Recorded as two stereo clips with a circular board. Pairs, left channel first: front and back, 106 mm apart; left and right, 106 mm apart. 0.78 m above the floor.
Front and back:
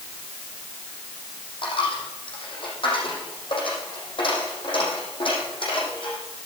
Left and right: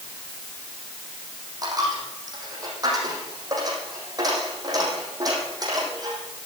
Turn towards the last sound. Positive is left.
turn(degrees=-35)